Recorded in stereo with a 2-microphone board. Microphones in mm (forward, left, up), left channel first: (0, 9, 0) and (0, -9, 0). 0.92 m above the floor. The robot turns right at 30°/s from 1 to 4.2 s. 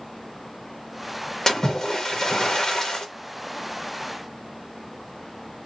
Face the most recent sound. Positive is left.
turn(degrees=145)